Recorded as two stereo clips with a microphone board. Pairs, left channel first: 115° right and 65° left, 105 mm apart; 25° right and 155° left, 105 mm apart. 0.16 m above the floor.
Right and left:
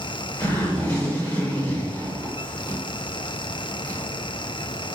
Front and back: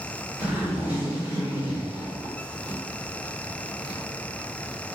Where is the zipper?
155° right, 1.7 m.